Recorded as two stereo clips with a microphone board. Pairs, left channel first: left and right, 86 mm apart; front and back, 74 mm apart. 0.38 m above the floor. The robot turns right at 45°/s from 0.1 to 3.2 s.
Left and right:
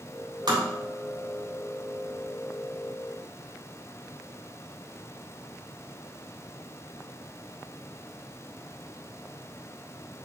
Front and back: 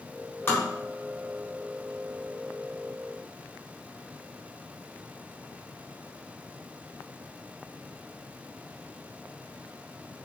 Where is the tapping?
55° right, 3.5 m; by 0.7 s 50° right, 3.5 m.